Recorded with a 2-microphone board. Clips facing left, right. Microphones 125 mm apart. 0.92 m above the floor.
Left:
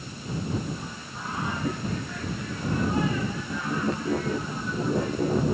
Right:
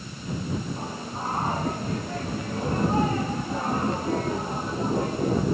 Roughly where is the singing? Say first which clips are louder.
Right 5 dB; right.